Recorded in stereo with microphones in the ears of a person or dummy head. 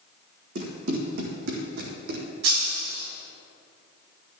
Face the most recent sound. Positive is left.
turn(degrees=-75)  # may be behind; listen again after turning